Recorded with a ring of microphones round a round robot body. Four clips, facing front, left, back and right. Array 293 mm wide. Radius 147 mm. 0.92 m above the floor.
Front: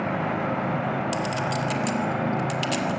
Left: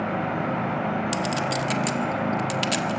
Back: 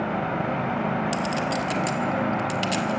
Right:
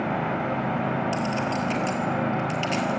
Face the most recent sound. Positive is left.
turn(degrees=90)